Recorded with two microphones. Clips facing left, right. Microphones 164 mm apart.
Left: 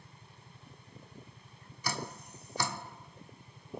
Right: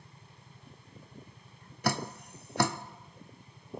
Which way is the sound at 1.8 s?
65° right (ahead or behind).